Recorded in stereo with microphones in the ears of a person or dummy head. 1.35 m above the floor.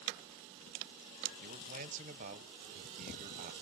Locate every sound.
1.4 s a man speaking: 40° right (ahead or behind), 0.7 m